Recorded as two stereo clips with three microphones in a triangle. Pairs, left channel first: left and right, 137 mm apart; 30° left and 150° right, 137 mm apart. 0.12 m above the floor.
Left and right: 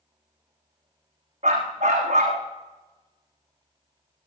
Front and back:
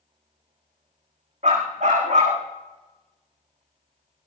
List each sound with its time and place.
1.4 s a dog barking: 125° right, 4 m